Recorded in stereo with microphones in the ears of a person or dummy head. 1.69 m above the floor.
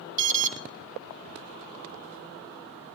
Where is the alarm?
40° right (ahead or behind), 0.9 m.